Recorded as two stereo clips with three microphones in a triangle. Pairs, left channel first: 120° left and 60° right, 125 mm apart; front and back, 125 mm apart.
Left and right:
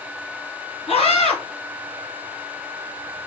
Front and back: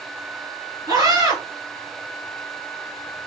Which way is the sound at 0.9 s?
125° left.